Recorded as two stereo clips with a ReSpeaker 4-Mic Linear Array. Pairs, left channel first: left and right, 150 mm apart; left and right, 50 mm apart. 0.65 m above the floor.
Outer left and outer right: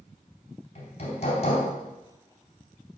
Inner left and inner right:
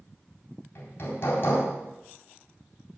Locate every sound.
0.8 s hammering: 45° left (ahead or behind), 3.5 m